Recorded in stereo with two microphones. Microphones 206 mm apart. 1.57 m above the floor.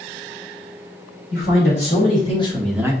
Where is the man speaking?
65° left (ahead or behind), 2.0 m; by 2.9 s 15° right (ahead or behind), 1.0 m.